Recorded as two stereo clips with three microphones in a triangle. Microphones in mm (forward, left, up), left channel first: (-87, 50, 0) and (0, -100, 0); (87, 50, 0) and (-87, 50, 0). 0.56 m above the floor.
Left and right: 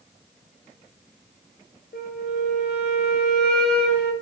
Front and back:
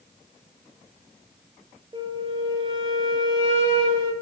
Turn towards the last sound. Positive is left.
turn(degrees=120)